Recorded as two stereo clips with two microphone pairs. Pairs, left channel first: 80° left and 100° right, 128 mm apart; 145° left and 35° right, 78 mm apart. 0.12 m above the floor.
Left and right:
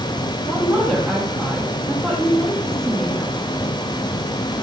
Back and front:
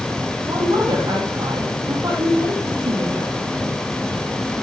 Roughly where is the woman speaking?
Ahead.